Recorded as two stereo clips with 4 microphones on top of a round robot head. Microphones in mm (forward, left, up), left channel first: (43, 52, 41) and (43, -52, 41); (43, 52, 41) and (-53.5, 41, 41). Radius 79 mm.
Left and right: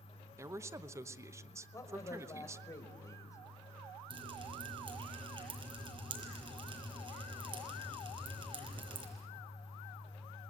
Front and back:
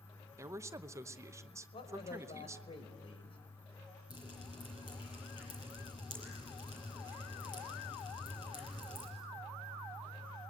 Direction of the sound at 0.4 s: 135° right.